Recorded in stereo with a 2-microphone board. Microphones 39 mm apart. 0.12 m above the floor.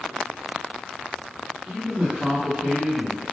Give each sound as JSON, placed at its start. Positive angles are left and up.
{"t": 1.7, "sound": "a man speaking", "side_deg": -25, "distance_m": 1.9}